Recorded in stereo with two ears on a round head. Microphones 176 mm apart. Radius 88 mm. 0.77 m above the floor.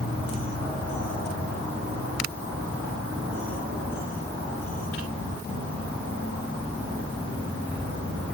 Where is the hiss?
I don't hear a hiss.